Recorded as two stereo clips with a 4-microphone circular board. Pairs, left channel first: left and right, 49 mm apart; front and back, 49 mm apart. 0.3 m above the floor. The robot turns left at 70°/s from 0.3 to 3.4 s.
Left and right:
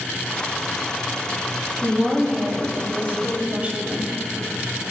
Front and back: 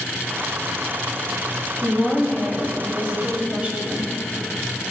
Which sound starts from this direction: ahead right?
A woman speaking, at 1.8 s.